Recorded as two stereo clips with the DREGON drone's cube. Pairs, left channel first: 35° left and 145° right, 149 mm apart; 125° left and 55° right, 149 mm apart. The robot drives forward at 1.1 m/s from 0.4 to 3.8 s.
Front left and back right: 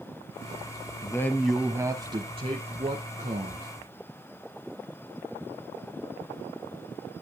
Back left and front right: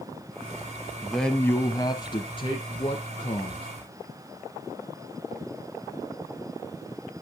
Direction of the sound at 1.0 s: 25° left.